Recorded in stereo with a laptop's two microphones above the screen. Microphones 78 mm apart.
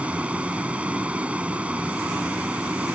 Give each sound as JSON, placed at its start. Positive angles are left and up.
{"t": 0.0, "sound": "a vehicle", "side_deg": -15}